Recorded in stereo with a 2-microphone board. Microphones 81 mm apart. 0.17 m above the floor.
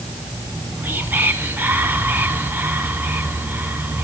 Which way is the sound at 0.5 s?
25° right (ahead or behind).